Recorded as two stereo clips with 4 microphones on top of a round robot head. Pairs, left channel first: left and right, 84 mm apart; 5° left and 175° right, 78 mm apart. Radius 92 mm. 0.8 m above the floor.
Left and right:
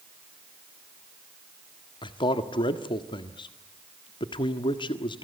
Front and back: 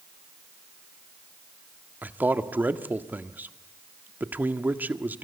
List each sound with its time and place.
2.0 s a man speaking: 115° left, 1.6 m